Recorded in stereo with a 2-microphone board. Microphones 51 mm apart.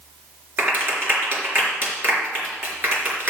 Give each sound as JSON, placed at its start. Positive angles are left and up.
{"t": 0.6, "sound": "a clap", "side_deg": -45, "distance_m": 3.5}